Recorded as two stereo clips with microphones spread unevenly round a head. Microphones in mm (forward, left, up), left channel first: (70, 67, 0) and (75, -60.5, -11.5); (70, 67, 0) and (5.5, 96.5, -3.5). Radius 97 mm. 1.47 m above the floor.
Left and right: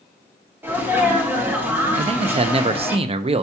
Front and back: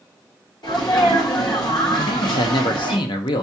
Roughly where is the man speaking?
Ahead right.